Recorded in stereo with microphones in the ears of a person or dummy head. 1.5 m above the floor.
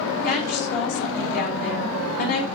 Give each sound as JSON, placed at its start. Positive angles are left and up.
{"t": 0.2, "sound": "a woman speaking", "side_deg": 50, "distance_m": 4.0}